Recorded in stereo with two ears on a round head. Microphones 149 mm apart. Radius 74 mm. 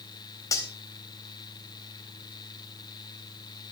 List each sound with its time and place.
0.5 s cutlery clinking: 20° left (ahead or behind), 3.5 m